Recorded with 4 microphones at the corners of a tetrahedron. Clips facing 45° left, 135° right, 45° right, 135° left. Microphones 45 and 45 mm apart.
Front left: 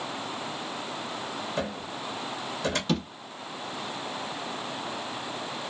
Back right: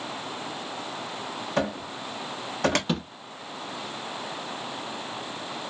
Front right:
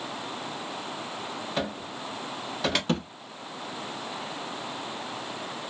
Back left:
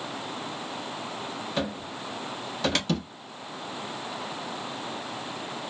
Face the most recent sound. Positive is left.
turn(degrees=-70)